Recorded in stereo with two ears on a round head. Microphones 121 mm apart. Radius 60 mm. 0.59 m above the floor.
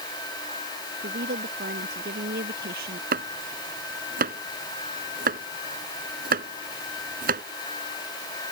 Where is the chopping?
70° right (ahead or behind).